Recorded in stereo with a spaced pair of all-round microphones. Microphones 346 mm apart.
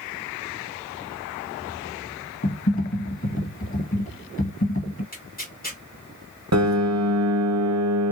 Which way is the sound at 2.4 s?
40° left (ahead or behind).